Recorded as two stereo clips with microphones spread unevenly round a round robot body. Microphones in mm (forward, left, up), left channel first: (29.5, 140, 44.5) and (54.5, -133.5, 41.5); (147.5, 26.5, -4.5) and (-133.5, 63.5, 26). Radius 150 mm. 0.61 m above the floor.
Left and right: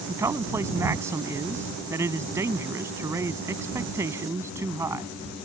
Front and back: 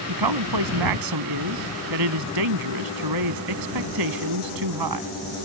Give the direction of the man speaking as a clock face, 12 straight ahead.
6 o'clock.